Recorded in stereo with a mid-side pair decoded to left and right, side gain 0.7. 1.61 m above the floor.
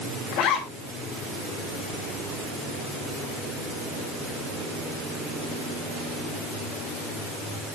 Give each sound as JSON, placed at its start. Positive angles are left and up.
{"t": 0.3, "sound": "a zipper", "azimuth_deg": 55, "distance_m": 7.0}